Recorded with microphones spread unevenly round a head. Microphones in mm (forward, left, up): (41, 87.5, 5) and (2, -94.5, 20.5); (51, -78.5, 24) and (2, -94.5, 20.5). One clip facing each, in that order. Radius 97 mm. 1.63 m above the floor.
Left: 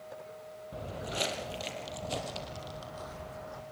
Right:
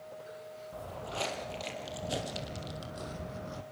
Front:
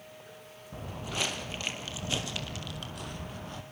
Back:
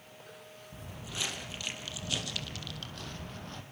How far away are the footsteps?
About 2.5 m.